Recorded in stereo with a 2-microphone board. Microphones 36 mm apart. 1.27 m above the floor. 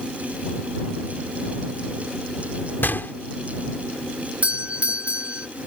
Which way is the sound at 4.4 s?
40° right (ahead or behind).